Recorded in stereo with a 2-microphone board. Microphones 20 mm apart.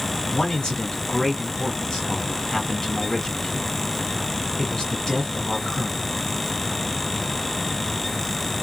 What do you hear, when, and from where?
0.3 s a man speaking: 30° left (ahead or behind), 1.4 m